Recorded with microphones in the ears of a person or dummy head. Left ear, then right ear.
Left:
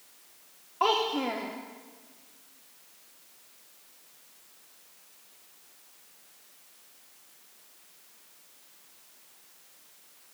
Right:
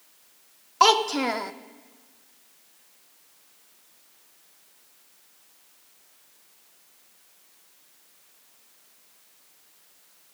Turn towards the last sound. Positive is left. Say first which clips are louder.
# right 7 dB
turn(degrees=-70)  # may be behind; listen again after turning